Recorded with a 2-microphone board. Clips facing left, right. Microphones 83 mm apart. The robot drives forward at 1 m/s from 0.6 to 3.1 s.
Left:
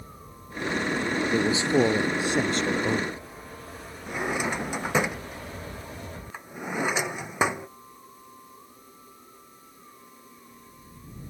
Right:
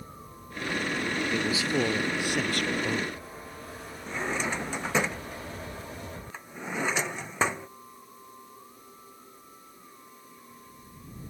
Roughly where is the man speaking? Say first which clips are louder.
Left 7 dB; left.